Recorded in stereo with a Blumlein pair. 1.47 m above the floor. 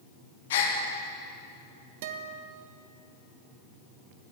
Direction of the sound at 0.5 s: 55° left.